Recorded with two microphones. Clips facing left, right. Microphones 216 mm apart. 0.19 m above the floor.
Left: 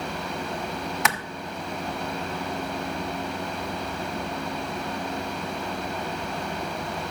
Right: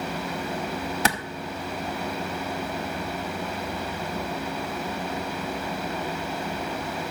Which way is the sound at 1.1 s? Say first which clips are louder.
Right 3 dB; 35° right (ahead or behind).